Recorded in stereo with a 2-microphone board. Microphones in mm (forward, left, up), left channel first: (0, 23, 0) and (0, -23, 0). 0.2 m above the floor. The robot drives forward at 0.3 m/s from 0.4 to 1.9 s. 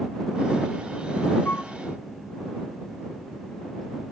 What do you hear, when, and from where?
1.4 s a flute: 45° left (ahead or behind), 0.9 m; by 1.7 s 40° left (ahead or behind), 0.9 m